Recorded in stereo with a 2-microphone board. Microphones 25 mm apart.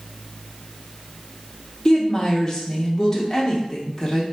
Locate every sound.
1.9 s a woman speaking: 25° left (ahead or behind), 0.7 m